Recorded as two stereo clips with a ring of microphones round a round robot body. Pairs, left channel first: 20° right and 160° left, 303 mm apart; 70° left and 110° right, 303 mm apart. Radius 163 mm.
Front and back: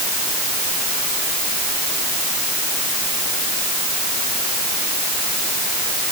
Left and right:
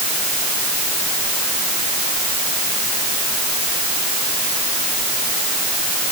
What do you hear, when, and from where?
Only background noise.